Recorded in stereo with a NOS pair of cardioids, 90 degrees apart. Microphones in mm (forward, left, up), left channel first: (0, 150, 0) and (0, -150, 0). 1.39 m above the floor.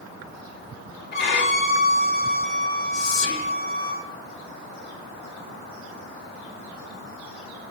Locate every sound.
1.1 s a violin: 40° left, 3.5 m
2.9 s whispering: 45° left, 1.8 m